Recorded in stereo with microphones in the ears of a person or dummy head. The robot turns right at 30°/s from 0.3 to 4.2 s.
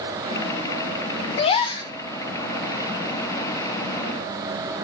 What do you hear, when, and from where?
1.4 s a gasp: 35° left (ahead or behind), 0.6 m; by 1.9 s 25° left (ahead or behind), 0.6 m